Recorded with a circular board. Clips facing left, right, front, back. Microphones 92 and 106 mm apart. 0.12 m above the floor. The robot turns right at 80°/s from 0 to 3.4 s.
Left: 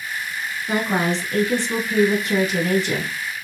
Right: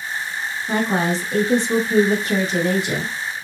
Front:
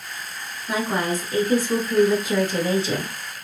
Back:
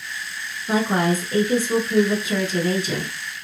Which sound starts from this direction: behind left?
A woman speaking, at 0.7 s.